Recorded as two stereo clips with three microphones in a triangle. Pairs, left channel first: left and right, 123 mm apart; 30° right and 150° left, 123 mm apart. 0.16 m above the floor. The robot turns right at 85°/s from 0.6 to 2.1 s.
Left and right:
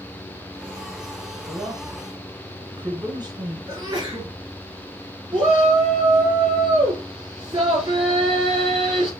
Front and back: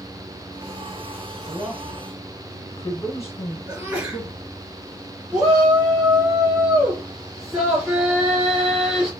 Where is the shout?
125° right, 1.9 m.